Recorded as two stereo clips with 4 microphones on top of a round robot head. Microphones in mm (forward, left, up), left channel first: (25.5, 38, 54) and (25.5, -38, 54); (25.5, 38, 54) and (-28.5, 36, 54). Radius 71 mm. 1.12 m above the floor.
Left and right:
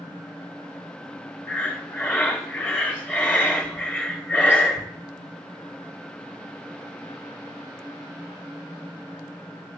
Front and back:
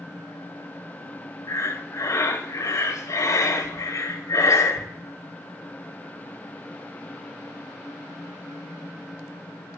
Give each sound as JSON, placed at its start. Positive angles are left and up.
{"t": 1.5, "sound": "breathing", "azimuth_deg": 20, "distance_m": 2.0}